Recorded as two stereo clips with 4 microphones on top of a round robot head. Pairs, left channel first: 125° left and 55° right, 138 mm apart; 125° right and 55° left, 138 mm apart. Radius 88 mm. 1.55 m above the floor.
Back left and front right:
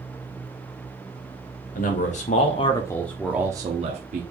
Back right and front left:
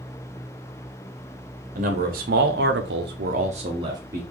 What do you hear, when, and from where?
1.8 s a man speaking: 90° left, 0.9 m; by 4.2 s 20° right, 0.7 m